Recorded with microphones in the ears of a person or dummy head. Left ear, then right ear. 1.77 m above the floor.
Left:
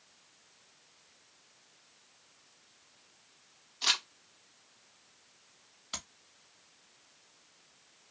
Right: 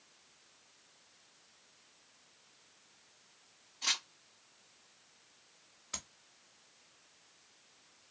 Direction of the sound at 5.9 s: 20° left (ahead or behind).